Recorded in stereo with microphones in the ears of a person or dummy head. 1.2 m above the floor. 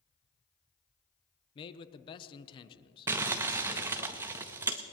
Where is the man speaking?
35° left (ahead or behind), 0.7 m.